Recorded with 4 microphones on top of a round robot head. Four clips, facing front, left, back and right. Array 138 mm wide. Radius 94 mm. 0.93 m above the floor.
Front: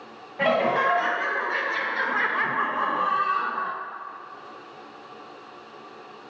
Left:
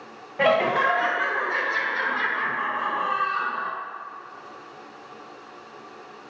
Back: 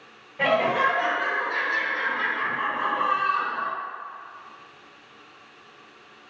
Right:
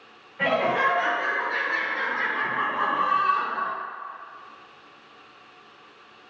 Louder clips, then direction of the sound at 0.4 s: Left 3 dB, even; 90° left.